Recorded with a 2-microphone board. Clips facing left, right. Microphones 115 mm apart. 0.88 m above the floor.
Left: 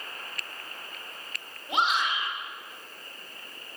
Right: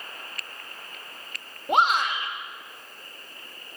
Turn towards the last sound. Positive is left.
turn(degrees=-55)  # may be behind; listen again after turning